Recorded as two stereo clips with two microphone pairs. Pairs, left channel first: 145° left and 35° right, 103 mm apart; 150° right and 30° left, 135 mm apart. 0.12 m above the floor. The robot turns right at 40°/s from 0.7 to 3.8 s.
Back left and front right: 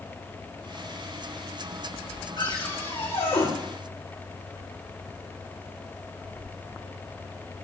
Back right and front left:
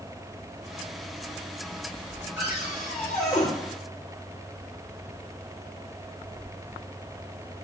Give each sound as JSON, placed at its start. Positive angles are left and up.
{"t": 2.4, "sound": "a cupboard door", "azimuth_deg": 105, "distance_m": 6.0}